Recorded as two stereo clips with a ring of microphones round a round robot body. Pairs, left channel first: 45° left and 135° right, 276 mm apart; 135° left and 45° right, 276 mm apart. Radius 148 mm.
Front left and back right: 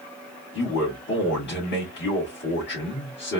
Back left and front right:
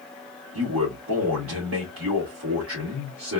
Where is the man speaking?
5° right, 2.5 m.